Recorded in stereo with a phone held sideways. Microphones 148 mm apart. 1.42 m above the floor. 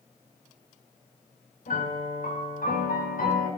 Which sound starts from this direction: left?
A piano, at 1.7 s.